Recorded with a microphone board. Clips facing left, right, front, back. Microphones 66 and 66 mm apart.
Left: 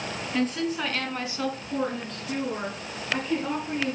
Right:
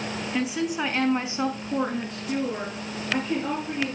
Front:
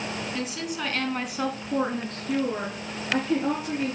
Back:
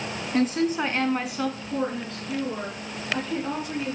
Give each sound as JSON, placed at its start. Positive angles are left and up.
{"t": 0.3, "sound": "a woman speaking", "azimuth_deg": -170, "distance_m": 1.4}